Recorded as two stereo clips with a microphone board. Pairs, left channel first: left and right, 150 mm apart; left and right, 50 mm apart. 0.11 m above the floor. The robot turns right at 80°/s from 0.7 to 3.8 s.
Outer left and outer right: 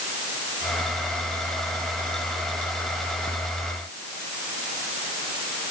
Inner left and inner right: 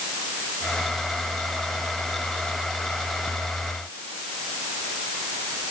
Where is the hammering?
I don't hear hammering.